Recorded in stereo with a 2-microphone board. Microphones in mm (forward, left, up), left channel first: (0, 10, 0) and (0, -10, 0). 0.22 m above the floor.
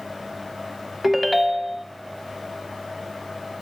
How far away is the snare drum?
I don't hear a snare drum.